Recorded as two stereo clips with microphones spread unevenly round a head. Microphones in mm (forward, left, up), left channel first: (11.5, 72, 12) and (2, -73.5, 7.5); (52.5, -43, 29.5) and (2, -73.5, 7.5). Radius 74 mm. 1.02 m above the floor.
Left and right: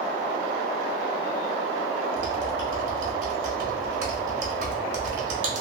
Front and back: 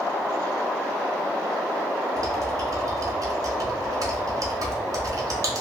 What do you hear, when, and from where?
2.2 s typing on a keyboard: 120° right, 0.9 m